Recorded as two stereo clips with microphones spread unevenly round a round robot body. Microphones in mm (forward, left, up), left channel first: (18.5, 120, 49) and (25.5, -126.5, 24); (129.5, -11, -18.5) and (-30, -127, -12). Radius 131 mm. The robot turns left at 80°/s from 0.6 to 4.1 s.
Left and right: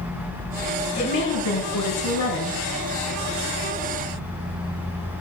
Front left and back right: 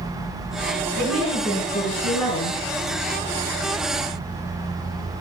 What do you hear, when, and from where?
0.9 s a woman speaking: 165° left, 4.5 m; by 2.6 s 30° left, 4.5 m